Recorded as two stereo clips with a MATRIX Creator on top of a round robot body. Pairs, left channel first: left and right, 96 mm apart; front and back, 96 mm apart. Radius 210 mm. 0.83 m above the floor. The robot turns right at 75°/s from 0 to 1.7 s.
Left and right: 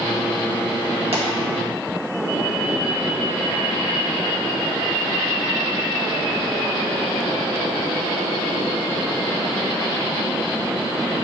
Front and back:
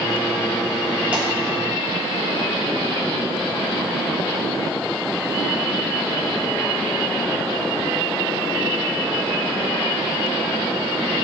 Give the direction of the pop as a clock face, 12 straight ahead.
3 o'clock.